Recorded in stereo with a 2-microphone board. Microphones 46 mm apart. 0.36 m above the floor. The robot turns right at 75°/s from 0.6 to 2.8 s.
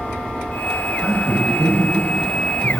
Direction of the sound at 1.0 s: Centre (ahead or behind).